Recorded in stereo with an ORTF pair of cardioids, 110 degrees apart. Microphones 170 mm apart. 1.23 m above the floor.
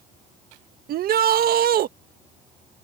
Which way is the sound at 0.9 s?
55° right.